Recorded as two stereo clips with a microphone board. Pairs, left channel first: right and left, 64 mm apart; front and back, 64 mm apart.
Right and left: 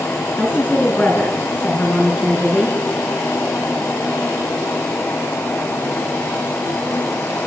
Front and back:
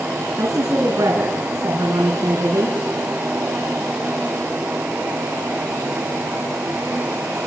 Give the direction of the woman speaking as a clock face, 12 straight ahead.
5 o'clock.